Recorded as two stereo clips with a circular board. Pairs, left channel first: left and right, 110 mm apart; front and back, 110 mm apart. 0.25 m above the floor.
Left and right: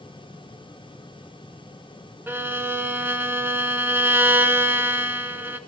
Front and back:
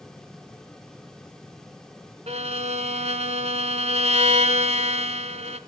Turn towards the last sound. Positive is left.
turn(degrees=-160)